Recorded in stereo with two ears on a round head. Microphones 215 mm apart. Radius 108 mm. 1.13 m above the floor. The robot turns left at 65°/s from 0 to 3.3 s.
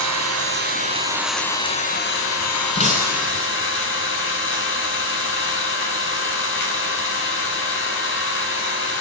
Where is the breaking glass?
155° left, 9 m; by 3.4 s 120° left, 9 m.